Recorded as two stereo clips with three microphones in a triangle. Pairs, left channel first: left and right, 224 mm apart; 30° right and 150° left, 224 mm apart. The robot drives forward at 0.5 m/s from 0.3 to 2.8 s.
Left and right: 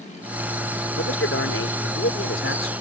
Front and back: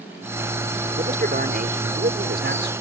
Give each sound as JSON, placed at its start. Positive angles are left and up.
{"t": 1.0, "sound": "a man speaking", "azimuth_deg": 100}